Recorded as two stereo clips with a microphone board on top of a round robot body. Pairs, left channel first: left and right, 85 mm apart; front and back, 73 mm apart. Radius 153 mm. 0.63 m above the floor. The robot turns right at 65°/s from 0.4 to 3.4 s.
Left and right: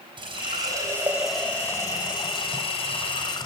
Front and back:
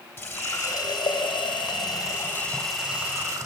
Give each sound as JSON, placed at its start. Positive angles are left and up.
{"t": 0.2, "sound": "a running tap", "azimuth_deg": -60, "distance_m": 3.0}